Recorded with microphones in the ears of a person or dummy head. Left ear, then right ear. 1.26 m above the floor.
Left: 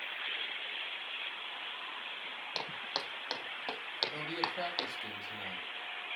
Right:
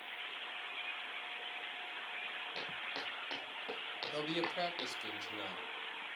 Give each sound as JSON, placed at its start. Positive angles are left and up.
{"t": 2.5, "sound": "footsteps", "side_deg": 60, "distance_m": 3.0}
{"t": 4.1, "sound": "a man speaking", "side_deg": -55, "distance_m": 2.5}